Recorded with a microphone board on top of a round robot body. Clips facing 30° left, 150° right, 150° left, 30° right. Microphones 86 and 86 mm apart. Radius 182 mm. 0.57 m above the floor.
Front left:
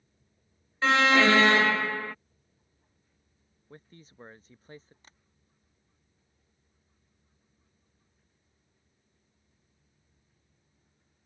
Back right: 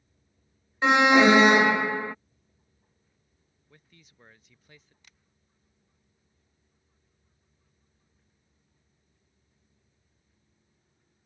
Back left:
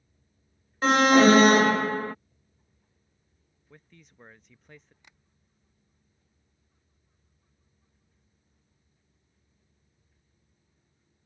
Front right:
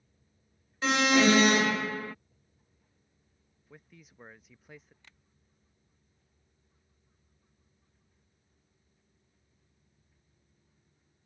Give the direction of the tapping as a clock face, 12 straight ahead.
9 o'clock.